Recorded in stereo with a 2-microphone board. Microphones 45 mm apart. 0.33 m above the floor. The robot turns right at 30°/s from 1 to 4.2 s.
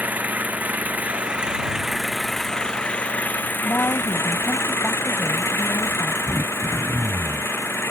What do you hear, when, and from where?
0.0 s an engine running: 35° right; by 7.9 s 60° left
3.6 s a woman speaking: 60° left (ahead or behind); by 6.2 s 55° left (ahead or behind)
6.3 s throat clearing: 85° right